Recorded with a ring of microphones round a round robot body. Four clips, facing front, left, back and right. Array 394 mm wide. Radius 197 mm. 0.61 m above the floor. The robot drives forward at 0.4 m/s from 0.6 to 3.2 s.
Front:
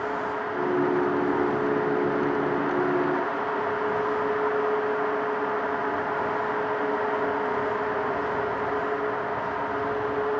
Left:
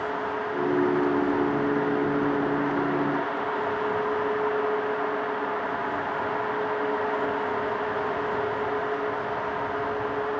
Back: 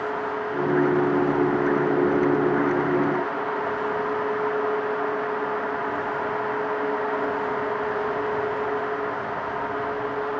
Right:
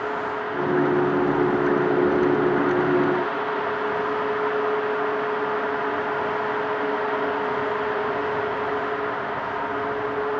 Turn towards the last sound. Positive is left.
No sound to turn to.